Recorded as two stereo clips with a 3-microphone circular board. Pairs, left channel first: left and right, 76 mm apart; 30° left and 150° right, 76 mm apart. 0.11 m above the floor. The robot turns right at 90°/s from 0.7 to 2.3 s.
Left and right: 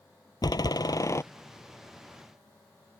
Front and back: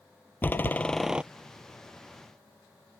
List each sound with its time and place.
0.4 s a door slam: 90° left; by 1.2 s 140° left